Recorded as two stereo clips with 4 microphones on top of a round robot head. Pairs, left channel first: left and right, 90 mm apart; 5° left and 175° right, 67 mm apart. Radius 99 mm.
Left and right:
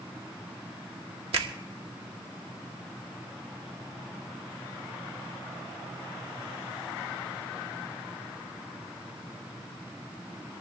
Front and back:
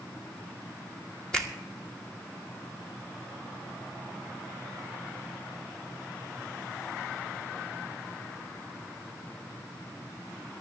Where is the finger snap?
75° right, 1.7 m.